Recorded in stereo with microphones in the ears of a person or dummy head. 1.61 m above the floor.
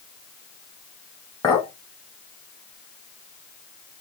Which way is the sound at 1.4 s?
15° left (ahead or behind).